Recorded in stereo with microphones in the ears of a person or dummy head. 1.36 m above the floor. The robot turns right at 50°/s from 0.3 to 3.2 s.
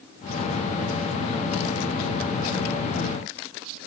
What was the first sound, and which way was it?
Only background noise.